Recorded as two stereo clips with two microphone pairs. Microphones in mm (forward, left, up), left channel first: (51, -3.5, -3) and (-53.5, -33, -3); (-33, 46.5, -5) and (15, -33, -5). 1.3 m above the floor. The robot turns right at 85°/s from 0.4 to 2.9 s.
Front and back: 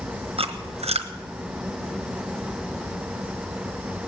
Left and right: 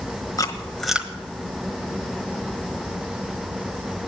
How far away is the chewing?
About 1.2 m.